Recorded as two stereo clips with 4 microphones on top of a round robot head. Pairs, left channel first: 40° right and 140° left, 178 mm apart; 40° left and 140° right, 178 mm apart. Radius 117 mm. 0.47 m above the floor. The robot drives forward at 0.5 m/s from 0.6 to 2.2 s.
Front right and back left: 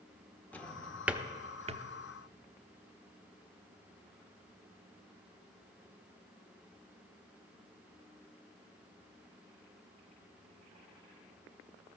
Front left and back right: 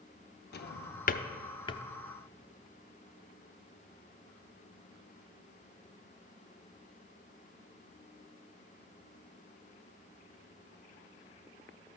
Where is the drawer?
40° left, 0.8 m; by 1.8 s 105° left, 0.6 m.